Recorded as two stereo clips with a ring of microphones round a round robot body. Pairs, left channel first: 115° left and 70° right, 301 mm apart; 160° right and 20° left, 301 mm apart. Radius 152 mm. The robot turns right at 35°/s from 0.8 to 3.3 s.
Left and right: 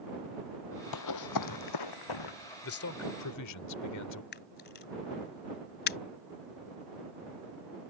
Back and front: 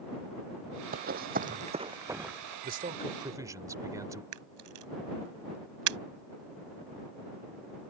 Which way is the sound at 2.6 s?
75° left.